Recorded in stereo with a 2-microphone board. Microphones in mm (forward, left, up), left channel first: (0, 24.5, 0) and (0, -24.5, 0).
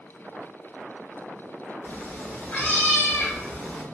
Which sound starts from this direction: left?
A cat meowing, at 1.8 s.